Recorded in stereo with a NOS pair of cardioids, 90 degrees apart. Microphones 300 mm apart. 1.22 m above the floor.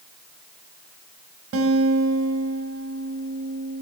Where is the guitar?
55° right, 6.5 m.